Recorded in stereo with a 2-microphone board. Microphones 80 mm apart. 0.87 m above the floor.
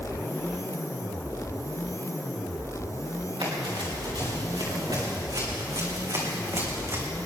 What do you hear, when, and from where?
3.4 s running footsteps: 80° right, 5.5 m; by 7.0 s 35° right (ahead or behind), 3.5 m